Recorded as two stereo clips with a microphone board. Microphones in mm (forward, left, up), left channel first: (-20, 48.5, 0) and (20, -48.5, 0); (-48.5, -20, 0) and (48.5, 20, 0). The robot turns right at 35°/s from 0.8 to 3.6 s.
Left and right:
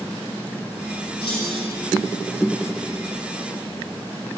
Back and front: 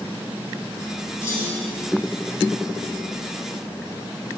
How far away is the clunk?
About 5 m.